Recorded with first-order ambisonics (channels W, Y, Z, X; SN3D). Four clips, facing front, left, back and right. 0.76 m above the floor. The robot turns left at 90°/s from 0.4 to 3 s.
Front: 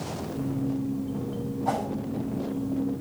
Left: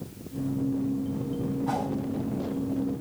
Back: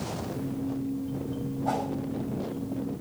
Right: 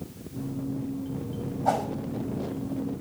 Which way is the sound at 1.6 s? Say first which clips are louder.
Right 6 dB, front 1 dB; 85° right.